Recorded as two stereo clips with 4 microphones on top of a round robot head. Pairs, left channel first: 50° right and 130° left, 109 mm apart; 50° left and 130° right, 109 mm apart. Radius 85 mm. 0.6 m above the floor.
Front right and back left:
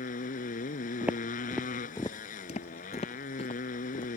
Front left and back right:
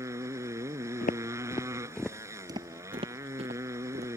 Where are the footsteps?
55° left; by 4.1 s 100° right.